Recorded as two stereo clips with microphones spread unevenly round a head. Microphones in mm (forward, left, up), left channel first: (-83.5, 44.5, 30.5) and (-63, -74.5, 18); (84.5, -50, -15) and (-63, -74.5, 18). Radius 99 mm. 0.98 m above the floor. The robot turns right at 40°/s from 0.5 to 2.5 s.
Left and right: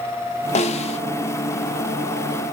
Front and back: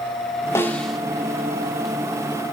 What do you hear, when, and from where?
0.6 s a snare drum: 95° left, 0.7 m; by 1.0 s 110° left, 0.7 m